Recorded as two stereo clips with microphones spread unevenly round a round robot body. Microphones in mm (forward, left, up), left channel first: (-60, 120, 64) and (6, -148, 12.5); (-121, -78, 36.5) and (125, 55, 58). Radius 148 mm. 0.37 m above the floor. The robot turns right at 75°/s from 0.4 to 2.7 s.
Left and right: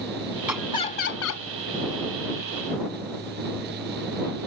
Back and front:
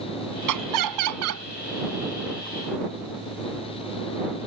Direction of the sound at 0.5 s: 5° left.